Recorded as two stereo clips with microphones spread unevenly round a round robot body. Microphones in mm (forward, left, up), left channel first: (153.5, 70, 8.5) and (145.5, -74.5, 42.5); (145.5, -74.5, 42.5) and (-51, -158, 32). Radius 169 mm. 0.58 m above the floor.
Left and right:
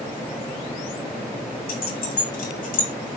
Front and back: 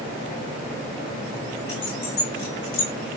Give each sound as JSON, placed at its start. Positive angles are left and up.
{"t": 1.7, "sound": "keys jangling", "azimuth_deg": 80, "distance_m": 3.0}